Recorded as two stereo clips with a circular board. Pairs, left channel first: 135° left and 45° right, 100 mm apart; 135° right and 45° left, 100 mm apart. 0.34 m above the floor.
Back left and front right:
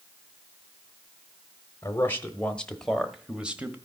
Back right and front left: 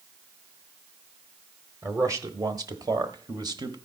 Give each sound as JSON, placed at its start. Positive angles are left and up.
{"t": 1.8, "sound": "a man speaking", "azimuth_deg": 85, "distance_m": 1.2}